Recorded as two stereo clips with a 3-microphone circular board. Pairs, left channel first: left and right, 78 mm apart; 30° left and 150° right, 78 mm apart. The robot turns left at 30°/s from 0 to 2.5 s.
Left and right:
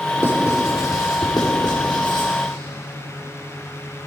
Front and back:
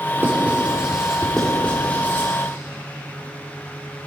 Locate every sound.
0.2 s writing: 150° left, 3.5 m; by 2.3 s 85° left, 3.5 m